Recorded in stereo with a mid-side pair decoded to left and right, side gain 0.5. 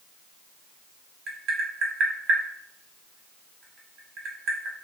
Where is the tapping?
55° right, 1.0 m.